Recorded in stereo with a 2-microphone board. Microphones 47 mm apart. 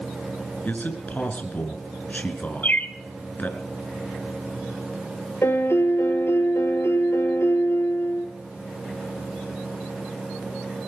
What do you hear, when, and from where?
0.7 s a man speaking: 40° left (ahead or behind), 3 m
2.6 s a bird: 40° left (ahead or behind), 1.1 m
5.4 s a piano: 70° left (ahead or behind), 4 m